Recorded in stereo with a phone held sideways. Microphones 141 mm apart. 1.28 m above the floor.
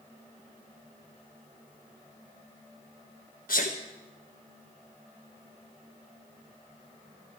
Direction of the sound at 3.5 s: 85° left.